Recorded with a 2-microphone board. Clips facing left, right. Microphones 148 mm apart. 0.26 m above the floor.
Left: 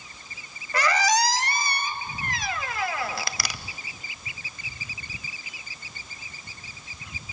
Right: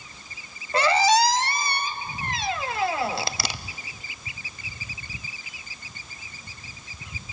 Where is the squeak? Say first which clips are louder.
Right 4 dB; 25° right (ahead or behind), 0.6 m.